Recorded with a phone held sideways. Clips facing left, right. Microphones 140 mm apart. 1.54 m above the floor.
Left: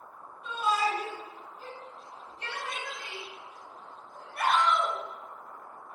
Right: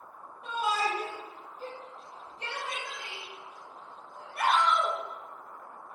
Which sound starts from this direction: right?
A shout, at 0.4 s.